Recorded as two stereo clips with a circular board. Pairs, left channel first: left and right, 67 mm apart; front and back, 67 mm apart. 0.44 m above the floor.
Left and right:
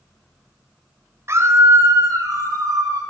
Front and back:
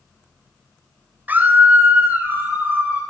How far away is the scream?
About 2 m.